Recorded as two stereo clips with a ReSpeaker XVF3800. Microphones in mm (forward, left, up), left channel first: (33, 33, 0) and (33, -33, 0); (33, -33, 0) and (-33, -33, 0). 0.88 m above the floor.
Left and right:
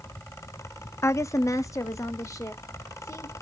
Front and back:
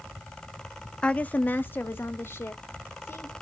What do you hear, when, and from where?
1.0 s a woman speaking: 65° left, 0.5 m; by 3.3 s 50° left, 2.5 m